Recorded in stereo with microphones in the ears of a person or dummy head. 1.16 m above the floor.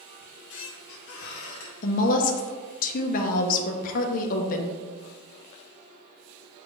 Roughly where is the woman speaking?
Left.